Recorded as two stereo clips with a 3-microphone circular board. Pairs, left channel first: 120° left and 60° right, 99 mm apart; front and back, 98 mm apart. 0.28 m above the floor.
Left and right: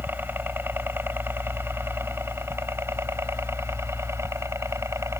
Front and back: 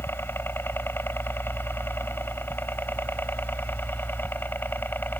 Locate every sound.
0.0 s a helicopter: 25° right; by 5.2 s 45° right